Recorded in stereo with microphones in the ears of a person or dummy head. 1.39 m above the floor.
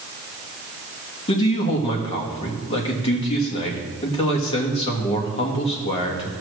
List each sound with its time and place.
1.3 s a man speaking: 30° left (ahead or behind), 1.6 m